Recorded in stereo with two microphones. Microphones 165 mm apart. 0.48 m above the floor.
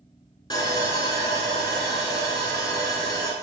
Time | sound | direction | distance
0.5 | sawing | 25° left (ahead or behind) | 0.8 m